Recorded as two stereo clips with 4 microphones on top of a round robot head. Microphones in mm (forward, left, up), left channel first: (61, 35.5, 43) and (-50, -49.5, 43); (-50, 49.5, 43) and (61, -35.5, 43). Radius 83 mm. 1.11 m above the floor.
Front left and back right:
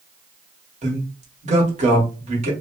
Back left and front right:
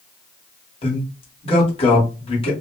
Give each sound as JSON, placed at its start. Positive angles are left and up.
{"t": 0.8, "sound": "a man speaking", "azimuth_deg": -170, "distance_m": 1.4}